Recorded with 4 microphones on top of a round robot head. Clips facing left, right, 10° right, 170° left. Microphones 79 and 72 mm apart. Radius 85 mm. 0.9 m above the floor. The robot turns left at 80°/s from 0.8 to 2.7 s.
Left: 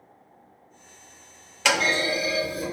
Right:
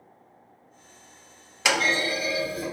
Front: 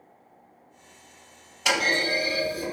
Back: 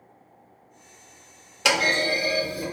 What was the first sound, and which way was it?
A clunk, 170° right.